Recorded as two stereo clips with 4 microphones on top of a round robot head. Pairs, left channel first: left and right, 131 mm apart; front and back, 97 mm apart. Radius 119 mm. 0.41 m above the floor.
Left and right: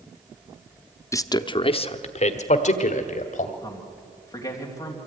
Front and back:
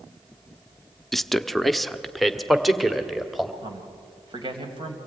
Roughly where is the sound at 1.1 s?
Left.